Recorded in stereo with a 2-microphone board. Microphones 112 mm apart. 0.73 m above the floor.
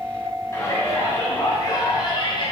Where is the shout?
25° left (ahead or behind), 5.5 m; by 2.5 s 45° left (ahead or behind), 6 m.